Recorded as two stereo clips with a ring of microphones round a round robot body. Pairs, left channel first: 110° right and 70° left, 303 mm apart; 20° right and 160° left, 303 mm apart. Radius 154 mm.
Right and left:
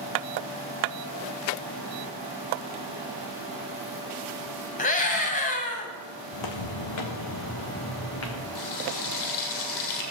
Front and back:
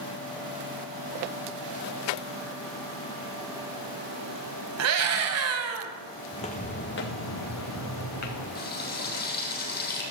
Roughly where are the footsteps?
Right.